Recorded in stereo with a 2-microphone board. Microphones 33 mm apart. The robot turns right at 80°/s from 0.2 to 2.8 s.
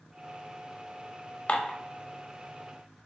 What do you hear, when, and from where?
1.5 s dishes clattering: 40° left (ahead or behind), 0.7 m; by 1.8 s 25° left (ahead or behind), 0.7 m